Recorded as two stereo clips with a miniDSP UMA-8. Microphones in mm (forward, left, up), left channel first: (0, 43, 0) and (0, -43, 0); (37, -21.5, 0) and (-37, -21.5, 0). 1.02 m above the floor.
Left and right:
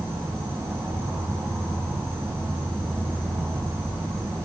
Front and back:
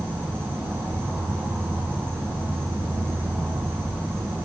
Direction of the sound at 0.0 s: 130° right.